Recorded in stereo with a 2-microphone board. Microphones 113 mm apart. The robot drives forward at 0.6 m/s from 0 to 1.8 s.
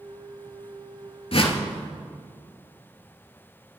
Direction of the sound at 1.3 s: 55° left (ahead or behind).